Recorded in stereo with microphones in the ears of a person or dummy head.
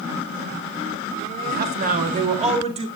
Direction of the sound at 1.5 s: 55° right (ahead or behind).